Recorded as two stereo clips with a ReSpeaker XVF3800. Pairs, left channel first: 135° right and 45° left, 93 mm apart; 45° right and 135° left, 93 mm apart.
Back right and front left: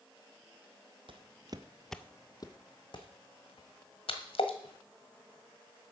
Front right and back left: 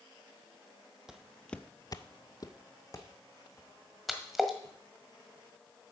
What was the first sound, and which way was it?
Footsteps, 50° left.